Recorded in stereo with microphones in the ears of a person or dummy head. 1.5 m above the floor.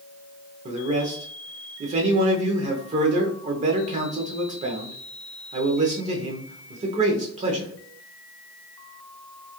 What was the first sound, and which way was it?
A man speaking, 30° right (ahead or behind).